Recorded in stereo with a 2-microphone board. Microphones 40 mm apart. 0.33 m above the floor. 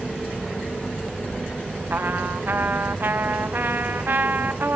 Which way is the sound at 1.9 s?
65° right (ahead or behind).